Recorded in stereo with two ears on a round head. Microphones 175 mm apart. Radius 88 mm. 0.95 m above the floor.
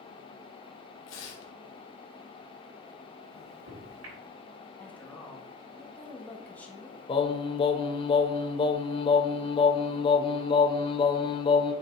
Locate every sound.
1.1 s tearing paper: 70° left (ahead or behind), 2 m
3.3 s a microwave: 70° right (ahead or behind), 3.5 m
4.8 s a woman speaking: 10° left (ahead or behind), 1.7 m
7.1 s singing: 25° left (ahead or behind), 0.7 m